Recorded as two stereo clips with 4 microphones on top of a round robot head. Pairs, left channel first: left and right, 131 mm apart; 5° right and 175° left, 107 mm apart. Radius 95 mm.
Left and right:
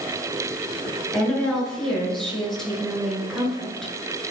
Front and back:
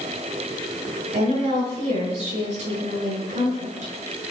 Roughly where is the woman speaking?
Behind.